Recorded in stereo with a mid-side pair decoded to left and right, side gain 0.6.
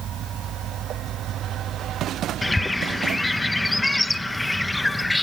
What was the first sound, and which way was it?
A bird, 5° left.